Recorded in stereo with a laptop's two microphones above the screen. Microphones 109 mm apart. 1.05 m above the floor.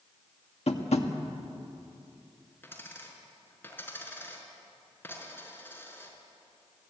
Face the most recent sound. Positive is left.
turn(degrees=20)  # may be behind; listen again after turning